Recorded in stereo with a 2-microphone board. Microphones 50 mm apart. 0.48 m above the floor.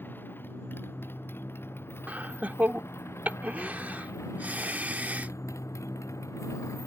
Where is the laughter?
30° right (ahead or behind).